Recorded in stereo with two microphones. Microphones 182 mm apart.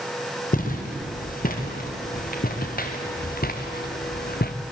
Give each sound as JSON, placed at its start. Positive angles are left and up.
{"t": 0.5, "sound": "footsteps", "side_deg": 50, "distance_m": 4.5}